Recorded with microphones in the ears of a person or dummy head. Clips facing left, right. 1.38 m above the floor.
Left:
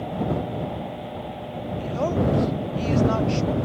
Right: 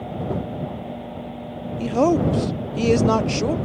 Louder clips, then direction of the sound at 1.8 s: Right 6 dB; 65° right (ahead or behind).